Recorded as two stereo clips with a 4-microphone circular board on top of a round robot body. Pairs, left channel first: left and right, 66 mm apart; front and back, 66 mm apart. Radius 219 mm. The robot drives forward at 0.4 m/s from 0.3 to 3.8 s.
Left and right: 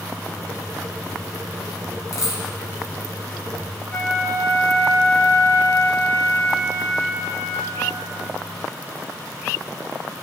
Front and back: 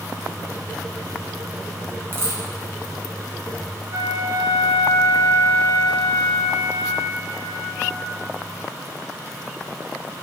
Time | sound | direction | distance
2.1 | a dropped coin | 125° left | 1.2 m
3.9 | a flute | 140° left | 2 m